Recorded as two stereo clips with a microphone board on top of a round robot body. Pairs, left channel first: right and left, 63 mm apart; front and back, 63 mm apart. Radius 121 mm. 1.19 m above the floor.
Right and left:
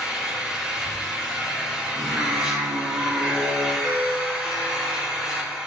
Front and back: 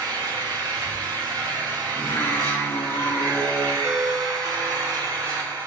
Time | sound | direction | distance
0.0 | an engine running | 170° left | 3.5 m
2.0 | singing | 55° left | 2 m
3.8 | a ringtone | 95° left | 2.5 m